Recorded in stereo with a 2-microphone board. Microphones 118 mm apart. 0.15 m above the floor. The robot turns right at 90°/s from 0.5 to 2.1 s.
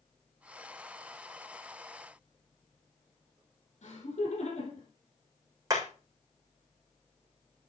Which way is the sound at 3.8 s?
65° left (ahead or behind).